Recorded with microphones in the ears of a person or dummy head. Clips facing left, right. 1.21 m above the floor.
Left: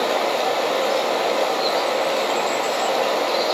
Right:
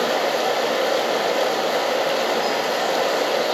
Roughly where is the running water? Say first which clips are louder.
Even; centre.